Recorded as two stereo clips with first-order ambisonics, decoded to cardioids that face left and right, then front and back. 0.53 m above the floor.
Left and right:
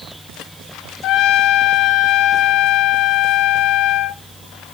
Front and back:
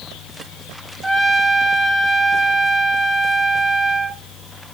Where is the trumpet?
95° left, 0.7 m.